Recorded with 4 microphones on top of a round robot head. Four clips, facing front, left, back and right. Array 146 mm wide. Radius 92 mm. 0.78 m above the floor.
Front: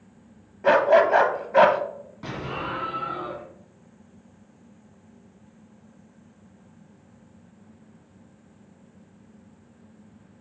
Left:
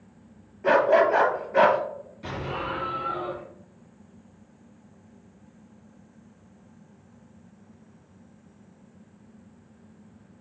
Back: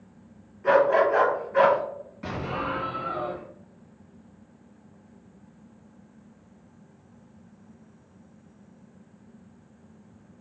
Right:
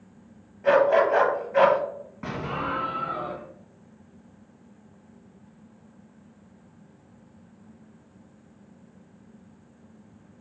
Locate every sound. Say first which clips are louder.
0.6 s a dog barking: even, front 2 dB; 5° right, 1.4 m
2.2 s an explosion: right 2 dB, back 1 dB; 65° right, 2.5 m